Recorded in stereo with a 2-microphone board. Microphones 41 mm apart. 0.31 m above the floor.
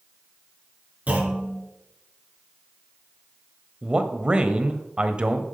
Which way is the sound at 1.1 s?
40° right (ahead or behind).